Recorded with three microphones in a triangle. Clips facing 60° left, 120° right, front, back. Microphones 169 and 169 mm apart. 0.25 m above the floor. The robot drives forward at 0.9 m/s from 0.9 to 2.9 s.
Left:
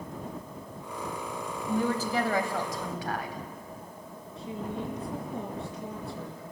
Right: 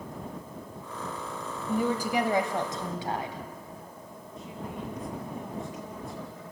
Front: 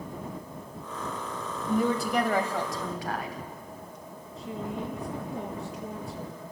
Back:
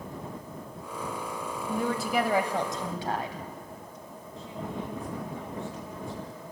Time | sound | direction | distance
1.7 | a woman speaking | 55° right | 1.5 m
4.4 | a woman speaking | 50° left | 4 m